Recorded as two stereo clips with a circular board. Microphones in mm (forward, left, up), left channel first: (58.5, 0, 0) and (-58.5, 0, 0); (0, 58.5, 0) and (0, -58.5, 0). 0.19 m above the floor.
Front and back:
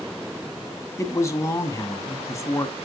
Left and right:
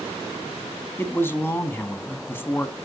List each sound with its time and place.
1.0 s a man speaking: 35° left, 1.3 m